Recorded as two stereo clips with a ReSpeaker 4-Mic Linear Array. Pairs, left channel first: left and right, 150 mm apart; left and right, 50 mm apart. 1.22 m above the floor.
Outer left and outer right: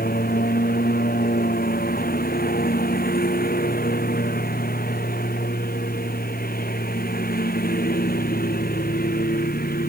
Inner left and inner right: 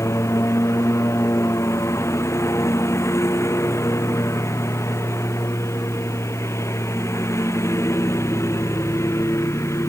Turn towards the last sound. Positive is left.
turn(degrees=80)